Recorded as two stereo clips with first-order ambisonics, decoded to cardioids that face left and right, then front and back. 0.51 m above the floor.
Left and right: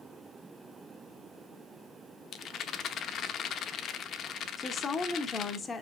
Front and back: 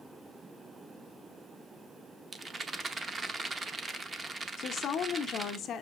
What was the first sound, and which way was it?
A rattle, 115° left.